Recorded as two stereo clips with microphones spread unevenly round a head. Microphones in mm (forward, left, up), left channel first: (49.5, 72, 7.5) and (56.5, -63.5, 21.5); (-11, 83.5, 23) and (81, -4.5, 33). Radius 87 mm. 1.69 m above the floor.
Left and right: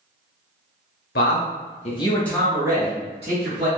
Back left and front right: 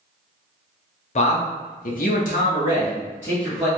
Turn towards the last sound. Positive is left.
turn(degrees=-135)